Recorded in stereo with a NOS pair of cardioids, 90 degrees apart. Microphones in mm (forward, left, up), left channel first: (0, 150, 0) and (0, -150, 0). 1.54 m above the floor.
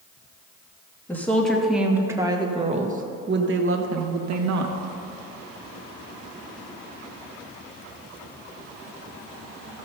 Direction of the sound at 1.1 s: 5° left.